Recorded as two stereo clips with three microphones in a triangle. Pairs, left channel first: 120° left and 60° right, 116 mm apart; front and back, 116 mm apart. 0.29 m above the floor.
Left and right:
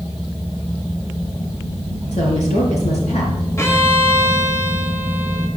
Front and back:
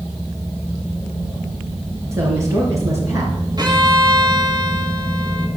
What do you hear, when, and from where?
2.1 s a woman speaking: 115° left, 4.5 m
3.6 s a violin: 165° left, 1.8 m